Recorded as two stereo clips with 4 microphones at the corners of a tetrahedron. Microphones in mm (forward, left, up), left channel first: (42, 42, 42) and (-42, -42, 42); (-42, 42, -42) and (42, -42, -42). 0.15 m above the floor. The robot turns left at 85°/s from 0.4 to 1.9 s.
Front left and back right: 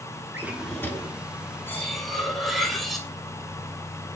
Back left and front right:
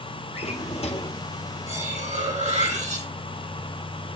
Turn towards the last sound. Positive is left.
turn(degrees=-45)